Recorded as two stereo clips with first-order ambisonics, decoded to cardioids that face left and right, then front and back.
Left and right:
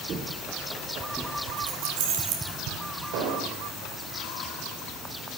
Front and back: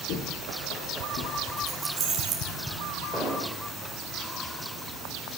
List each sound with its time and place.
0.1 s footsteps: 35° right, 3 m; by 1.4 s 5° left, 1.9 m
1.6 s keys jangling: 110° right, 4.5 m
3.1 s an explosion: 80° right, 3.5 m